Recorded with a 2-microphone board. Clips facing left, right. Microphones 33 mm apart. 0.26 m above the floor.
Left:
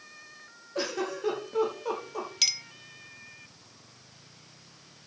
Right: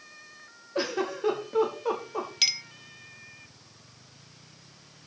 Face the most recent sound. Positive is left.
turn(degrees=-15)  # may be behind; listen again after turning